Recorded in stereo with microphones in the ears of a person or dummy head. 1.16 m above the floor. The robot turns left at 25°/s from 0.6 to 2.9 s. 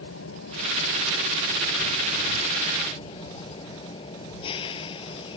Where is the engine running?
85° left; by 5.4 s 30° left.